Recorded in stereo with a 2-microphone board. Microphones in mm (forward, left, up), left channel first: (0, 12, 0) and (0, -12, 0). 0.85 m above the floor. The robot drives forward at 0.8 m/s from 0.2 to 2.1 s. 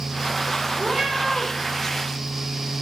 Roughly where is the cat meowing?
Right.